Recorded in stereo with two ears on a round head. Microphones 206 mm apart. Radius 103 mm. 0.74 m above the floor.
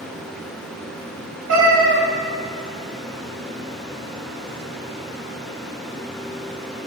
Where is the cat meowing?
75° right (ahead or behind), 3.5 m.